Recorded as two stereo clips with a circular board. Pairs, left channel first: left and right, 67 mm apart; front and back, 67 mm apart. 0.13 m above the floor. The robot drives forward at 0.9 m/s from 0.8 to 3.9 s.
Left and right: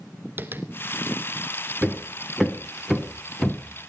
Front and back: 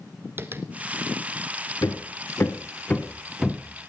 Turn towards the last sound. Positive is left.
turn(degrees=-175)